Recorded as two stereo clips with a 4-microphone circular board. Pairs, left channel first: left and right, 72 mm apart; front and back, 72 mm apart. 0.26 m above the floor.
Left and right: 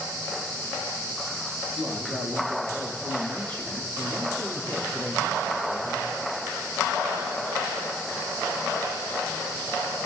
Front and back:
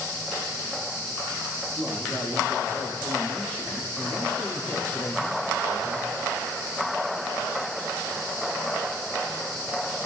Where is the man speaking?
90° right, 8.5 m; by 6.2 s 65° right, 9.5 m.